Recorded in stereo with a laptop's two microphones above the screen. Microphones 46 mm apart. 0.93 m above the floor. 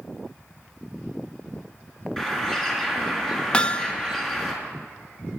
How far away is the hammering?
About 0.8 m.